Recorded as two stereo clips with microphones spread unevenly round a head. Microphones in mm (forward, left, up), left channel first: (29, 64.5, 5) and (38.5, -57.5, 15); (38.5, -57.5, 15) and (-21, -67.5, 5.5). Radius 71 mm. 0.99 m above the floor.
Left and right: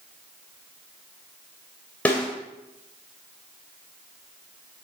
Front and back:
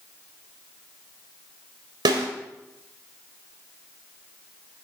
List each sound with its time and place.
2.0 s a snare drum: 175° left, 2 m